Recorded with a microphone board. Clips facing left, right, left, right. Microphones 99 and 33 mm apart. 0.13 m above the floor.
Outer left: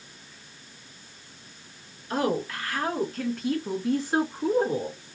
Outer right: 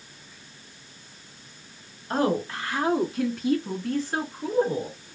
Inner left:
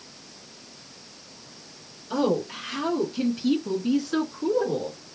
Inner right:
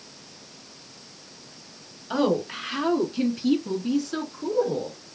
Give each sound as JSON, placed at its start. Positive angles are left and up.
{"t": 2.1, "sound": "a woman speaking", "side_deg": -35, "distance_m": 1.3}